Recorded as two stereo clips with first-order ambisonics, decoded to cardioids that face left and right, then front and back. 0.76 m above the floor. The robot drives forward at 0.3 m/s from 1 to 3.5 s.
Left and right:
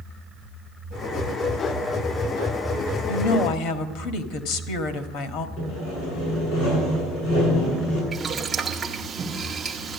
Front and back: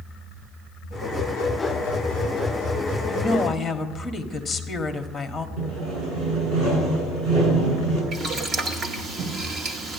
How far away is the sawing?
About 8.5 m.